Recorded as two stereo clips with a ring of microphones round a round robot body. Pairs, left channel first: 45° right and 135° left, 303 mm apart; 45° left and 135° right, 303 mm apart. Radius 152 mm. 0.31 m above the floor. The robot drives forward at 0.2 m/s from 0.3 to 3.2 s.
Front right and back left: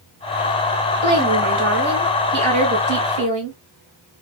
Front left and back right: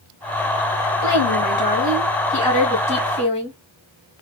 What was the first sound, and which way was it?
A woman speaking, 95° left.